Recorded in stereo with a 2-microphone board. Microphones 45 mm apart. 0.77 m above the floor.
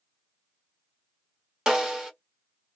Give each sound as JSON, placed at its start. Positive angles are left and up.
{"t": 1.7, "sound": "a snare drum", "side_deg": -15, "distance_m": 1.3}